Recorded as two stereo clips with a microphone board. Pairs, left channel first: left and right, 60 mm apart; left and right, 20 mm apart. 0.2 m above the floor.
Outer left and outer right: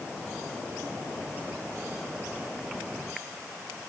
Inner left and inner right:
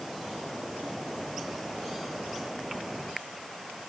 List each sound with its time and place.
Only background noise.